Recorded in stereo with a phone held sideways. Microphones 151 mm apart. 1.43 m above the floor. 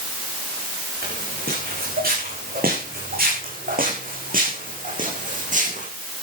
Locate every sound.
1.0 s footsteps: 80° right, 8 m; by 5.9 s 55° right (ahead or behind), 6 m